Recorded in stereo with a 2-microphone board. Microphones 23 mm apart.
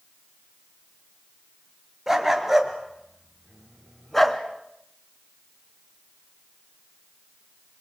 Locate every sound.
2.1 s a dog barking: 15° right (ahead or behind), 3.5 m; by 4.4 s 15° left (ahead or behind), 2 m